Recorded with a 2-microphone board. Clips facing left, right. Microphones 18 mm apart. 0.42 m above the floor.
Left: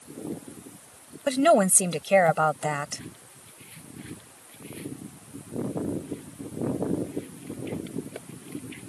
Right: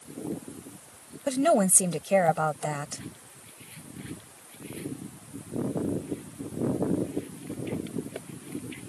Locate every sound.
1.3 s a woman speaking: 25° left (ahead or behind)